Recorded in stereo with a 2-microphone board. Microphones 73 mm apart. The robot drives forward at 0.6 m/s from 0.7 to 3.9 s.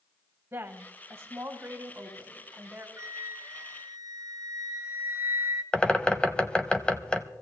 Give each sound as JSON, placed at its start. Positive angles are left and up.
{"t": 0.5, "sound": "a woman speaking", "side_deg": -30, "distance_m": 1.4}
{"t": 3.0, "sound": "a flute", "side_deg": -45, "distance_m": 1.4}
{"t": 5.7, "sound": "a bird", "side_deg": 15, "distance_m": 0.6}